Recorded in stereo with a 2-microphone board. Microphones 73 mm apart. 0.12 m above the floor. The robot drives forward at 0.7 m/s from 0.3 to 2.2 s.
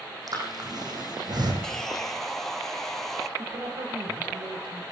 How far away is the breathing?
About 5.5 m.